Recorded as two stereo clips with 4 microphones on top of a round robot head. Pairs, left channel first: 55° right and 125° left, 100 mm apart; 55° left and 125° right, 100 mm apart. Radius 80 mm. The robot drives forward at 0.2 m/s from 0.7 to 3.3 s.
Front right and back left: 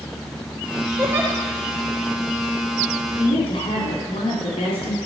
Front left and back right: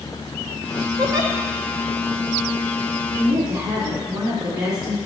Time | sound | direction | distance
1.0 | a giggle | 170° right | 1.8 m
3.2 | a woman speaking | 75° right | 3 m